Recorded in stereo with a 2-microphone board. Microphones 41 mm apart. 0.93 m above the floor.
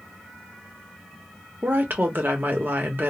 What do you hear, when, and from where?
1.6 s a woman speaking: 50° right (ahead or behind), 0.9 m